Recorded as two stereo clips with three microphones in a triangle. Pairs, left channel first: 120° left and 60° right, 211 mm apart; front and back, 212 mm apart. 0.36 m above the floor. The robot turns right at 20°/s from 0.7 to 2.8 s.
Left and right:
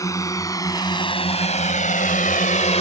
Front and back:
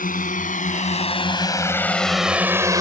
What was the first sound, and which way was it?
A drone, 45° left.